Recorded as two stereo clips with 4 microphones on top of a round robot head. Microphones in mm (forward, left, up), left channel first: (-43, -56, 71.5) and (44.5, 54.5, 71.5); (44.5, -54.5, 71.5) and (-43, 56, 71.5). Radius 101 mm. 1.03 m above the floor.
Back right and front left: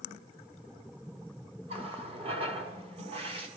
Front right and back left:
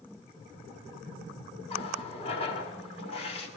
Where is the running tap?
Straight ahead, 1.4 m.